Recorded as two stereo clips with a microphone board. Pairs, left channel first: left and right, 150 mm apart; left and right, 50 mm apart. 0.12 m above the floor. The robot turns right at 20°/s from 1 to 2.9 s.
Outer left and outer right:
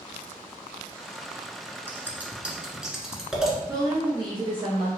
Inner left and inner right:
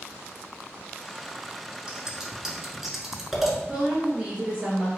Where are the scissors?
15° right (ahead or behind), 1.4 m; by 3.6 s 5° right (ahead or behind), 1.4 m.